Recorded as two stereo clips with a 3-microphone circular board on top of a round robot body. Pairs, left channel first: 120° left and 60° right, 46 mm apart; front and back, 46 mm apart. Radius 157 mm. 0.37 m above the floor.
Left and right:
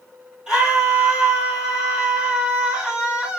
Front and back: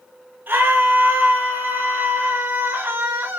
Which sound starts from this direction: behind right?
A scream, at 0.5 s.